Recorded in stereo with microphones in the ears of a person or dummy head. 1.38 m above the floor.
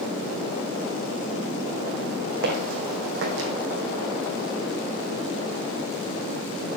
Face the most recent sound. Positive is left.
turn(degrees=-60)  # may be behind; listen again after turning